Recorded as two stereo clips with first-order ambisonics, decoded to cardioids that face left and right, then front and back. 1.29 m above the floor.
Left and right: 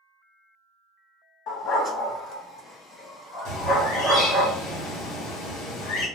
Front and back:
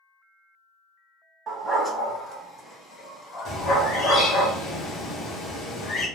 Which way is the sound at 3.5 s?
60° left.